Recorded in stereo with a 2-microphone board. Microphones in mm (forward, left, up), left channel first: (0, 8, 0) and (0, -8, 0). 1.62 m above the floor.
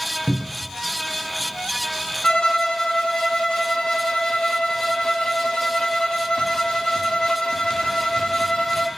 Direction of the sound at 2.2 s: 65° left (ahead or behind).